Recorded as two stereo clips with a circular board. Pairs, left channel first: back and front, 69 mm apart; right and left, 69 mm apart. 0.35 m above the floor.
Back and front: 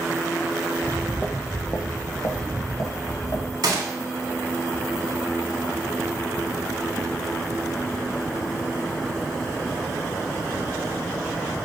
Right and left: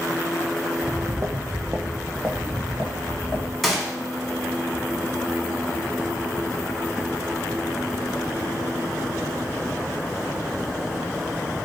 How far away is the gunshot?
About 0.7 m.